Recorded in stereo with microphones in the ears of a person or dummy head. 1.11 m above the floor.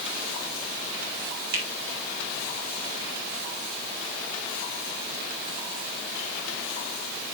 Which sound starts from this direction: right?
A finger snap, at 1.5 s.